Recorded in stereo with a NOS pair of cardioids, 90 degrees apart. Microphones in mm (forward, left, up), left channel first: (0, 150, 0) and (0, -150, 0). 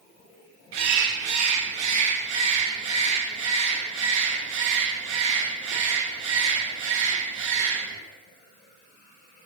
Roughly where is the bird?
Ahead right.